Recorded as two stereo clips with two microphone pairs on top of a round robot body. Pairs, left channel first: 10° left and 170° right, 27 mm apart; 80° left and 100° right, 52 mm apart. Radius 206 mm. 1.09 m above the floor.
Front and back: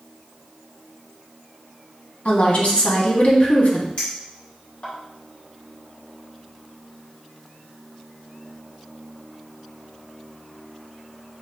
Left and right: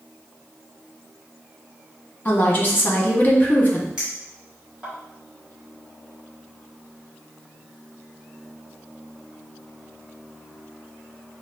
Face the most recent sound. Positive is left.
turn(degrees=-30)